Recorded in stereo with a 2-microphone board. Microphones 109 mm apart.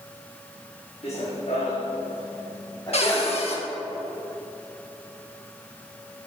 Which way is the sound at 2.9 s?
60° left (ahead or behind).